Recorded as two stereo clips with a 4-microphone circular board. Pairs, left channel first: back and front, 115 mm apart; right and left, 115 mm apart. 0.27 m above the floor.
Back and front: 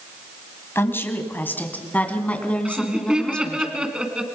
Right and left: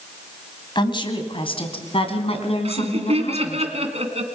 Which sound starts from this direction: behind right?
A woman speaking, at 0.8 s.